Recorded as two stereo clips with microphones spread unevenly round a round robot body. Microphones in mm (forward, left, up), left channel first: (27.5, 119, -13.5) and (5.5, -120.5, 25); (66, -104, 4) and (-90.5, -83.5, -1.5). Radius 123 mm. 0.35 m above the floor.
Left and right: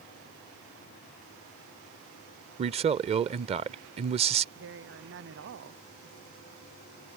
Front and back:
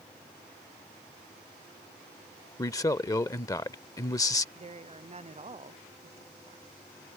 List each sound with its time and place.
2.6 s a man speaking: 45° right
4.5 s a woman speaking: 140° right